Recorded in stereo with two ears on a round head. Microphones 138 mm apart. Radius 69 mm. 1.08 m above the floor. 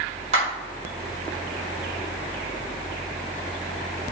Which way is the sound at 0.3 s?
45° right (ahead or behind).